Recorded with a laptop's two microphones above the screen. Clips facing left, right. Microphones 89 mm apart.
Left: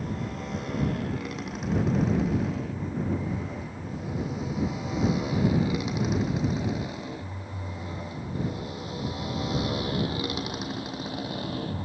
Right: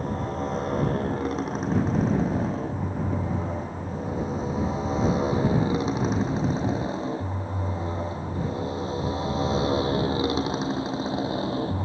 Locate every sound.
0.0 s a motorcycle: 35° right (ahead or behind); by 11.8 s 25° right (ahead or behind)